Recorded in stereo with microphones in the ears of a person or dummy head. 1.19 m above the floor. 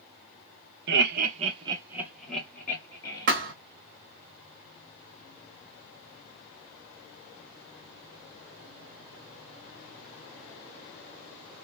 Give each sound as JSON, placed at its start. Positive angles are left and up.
{"t": 0.9, "sound": "laughter", "side_deg": -55, "distance_m": 1.0}
{"t": 3.3, "sound": "a thud", "side_deg": -55, "distance_m": 1.1}